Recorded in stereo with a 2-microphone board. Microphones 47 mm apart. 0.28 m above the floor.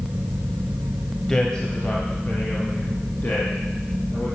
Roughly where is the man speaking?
Centre.